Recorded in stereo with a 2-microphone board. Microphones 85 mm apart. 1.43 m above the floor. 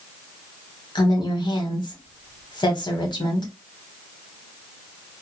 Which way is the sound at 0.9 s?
60° left (ahead or behind).